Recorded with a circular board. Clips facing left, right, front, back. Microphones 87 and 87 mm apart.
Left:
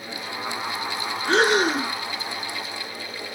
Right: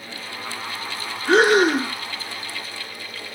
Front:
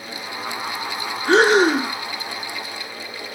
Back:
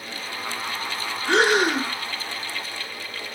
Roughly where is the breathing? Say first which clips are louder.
Right 4 dB, front 5 dB; ahead right.